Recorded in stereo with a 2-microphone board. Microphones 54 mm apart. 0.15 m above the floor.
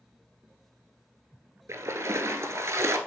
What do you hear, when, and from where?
1.7 s a splash: 65° right (ahead or behind), 0.7 m